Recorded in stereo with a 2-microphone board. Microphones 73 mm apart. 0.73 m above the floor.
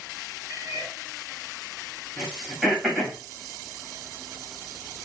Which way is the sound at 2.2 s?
5° right (ahead or behind).